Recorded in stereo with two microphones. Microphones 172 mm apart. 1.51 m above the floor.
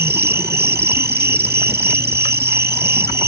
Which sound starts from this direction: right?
An insect, at 0.0 s.